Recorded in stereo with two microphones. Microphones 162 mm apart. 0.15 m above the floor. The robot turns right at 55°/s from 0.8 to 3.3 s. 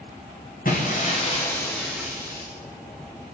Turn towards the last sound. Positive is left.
turn(degrees=-105)